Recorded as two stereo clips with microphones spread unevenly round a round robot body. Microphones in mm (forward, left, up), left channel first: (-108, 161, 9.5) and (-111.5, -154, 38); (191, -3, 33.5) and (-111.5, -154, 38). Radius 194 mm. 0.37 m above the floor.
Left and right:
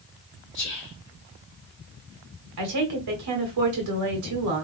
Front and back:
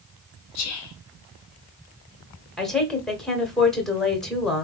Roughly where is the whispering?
Ahead left.